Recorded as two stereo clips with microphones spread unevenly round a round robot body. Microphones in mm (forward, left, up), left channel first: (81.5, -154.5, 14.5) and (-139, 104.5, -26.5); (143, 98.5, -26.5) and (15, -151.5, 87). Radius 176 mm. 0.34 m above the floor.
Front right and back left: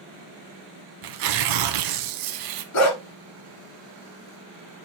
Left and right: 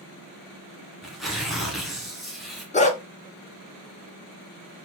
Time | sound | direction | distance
1.0 | tearing paper | 150° left | 1.0 m
2.7 | a dog barking | straight ahead | 1.6 m